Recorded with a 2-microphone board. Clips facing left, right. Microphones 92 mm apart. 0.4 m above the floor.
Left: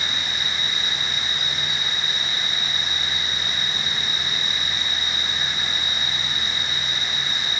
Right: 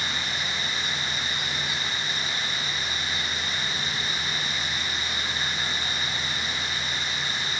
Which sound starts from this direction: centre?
An insect, at 0.0 s.